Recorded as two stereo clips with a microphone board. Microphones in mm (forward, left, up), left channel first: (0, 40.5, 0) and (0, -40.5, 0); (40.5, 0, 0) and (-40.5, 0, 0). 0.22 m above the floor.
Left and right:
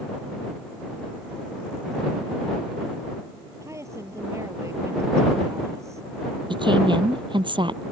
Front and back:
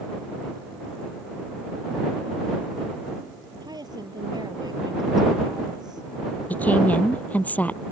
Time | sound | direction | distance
3.6 | a woman speaking | 145° right | ?
6.5 | a woman speaking | 70° right | ?